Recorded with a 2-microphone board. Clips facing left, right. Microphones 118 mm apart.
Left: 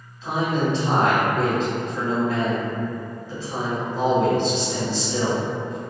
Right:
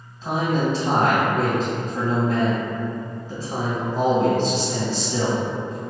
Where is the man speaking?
40° right (ahead or behind), 1.7 m.